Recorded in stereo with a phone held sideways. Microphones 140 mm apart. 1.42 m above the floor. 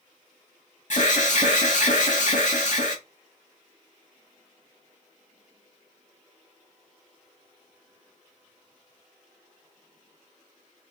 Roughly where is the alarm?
Left.